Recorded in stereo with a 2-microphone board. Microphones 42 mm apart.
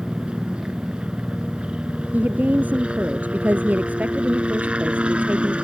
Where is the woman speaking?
45° right (ahead or behind).